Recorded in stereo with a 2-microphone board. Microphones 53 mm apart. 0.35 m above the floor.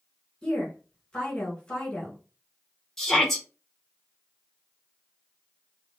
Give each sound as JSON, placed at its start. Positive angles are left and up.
{"t": 0.4, "sound": "a woman speaking", "side_deg": 10, "distance_m": 1.9}
{"t": 3.0, "sound": "a shout", "side_deg": 5, "distance_m": 1.4}